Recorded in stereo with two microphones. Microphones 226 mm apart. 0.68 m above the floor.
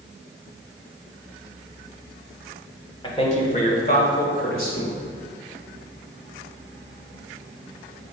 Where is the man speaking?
25° left (ahead or behind), 1.8 m; by 4.9 s 65° left (ahead or behind), 3 m.